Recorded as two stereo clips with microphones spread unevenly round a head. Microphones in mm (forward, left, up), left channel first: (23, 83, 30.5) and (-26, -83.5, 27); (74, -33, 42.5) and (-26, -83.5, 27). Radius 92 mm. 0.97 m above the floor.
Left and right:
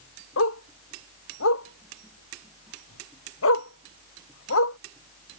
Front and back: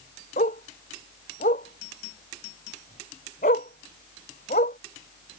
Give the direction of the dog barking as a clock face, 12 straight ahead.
10 o'clock.